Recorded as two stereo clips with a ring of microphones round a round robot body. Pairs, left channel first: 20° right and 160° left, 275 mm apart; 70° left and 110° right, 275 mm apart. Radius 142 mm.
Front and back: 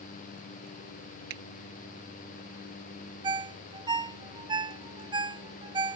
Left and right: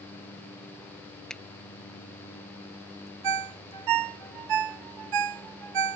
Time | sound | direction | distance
1.3 | a finger snap | 155° left | ?
3.2 | a ringtone | 125° right | ?